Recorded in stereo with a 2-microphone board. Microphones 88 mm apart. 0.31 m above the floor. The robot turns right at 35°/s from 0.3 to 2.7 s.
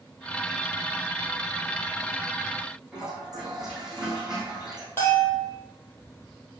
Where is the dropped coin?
No dropped coin in this recording.